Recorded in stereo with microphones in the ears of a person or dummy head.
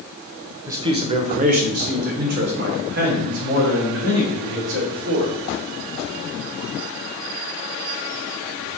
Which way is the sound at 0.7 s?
15° right (ahead or behind).